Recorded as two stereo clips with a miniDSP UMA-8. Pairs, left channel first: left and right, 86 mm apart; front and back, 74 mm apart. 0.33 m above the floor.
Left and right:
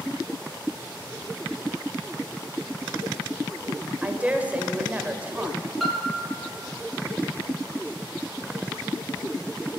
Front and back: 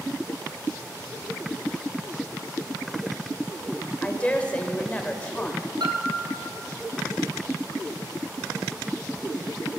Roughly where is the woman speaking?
Ahead right.